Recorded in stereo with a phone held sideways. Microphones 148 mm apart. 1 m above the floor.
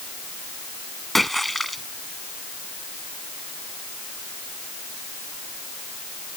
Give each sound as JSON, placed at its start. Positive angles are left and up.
{"t": 1.1, "sound": "a splash", "side_deg": 0}